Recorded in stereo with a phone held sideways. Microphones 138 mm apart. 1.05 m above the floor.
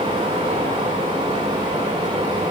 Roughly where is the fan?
Right.